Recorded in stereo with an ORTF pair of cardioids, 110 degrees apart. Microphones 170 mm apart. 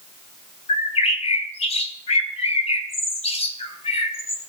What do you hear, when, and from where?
0.7 s a bird: 40° left, 3 m